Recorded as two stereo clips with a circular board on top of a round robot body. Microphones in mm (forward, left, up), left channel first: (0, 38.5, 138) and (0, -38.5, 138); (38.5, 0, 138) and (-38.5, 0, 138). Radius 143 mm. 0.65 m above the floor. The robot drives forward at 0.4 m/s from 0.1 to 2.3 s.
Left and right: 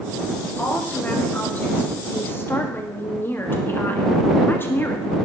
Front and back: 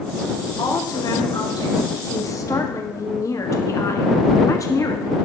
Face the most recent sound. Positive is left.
turn(degrees=35)